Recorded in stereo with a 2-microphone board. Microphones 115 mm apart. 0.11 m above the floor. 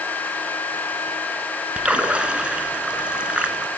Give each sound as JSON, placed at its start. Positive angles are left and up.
{"t": 1.8, "sound": "a splash", "side_deg": -10, "distance_m": 1.3}